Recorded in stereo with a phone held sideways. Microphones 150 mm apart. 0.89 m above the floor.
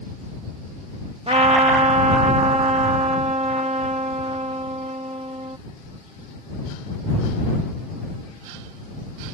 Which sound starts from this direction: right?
A trumpet, at 1.3 s.